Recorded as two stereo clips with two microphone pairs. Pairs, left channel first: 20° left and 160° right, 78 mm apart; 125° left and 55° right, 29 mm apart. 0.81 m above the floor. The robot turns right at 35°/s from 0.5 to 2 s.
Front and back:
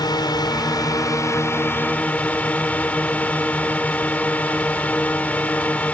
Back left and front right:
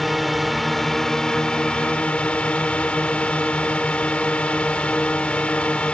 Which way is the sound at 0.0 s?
35° left.